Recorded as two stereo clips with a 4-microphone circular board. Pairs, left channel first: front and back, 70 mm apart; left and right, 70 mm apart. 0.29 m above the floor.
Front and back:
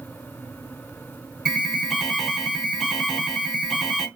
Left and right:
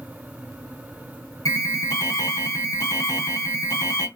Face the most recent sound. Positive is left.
turn(degrees=95)